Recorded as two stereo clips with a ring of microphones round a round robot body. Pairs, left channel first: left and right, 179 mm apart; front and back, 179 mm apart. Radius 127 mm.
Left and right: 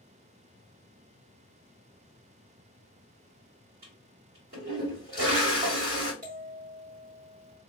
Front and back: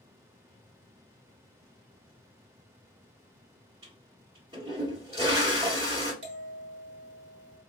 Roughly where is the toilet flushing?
Right.